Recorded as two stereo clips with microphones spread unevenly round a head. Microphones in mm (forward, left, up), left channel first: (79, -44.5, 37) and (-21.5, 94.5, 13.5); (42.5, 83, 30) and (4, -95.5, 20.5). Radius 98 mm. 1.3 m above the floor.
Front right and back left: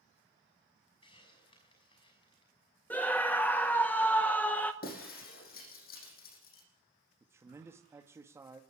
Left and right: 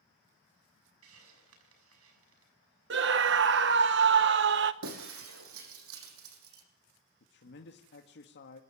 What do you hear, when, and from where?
1.0 s a hiss: 120° right, 6 m
2.9 s a scream: 135° right, 0.9 m
4.8 s breaking glass: 100° right, 7 m
7.2 s a man speaking: 50° left, 2 m